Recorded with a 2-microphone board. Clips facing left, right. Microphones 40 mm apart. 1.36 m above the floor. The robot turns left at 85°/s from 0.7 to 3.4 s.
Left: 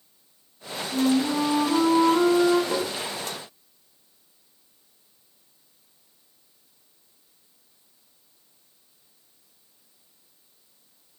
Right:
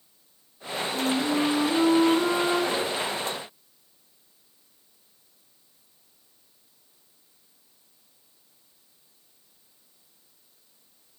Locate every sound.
0.9 s a flute: 165° left, 1.3 m; by 2.6 s 20° left, 1.3 m
2.7 s tapping: 30° left (ahead or behind), 0.9 m; by 2.9 s 40° left (ahead or behind), 0.9 m